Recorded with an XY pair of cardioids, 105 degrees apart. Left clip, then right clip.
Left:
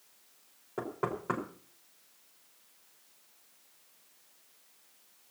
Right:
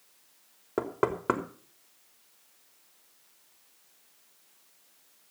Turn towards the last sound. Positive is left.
turn(degrees=-65)